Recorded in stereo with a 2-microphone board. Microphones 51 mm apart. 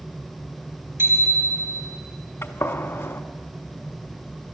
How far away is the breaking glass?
No breaking glass in this recording.